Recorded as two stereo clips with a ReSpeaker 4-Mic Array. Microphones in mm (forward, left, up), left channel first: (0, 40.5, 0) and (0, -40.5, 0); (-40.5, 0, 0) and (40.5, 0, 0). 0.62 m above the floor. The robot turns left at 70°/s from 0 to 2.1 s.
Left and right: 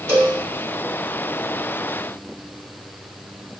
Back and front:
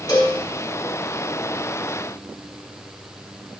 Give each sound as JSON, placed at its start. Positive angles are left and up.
{"t": 0.1, "sound": "a cowbell", "azimuth_deg": -140, "distance_m": 1.6}